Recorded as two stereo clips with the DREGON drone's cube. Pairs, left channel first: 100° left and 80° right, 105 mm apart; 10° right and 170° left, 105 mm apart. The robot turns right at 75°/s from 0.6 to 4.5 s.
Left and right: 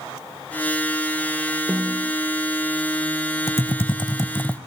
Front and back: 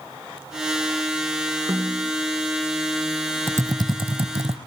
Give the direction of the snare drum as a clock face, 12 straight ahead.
7 o'clock.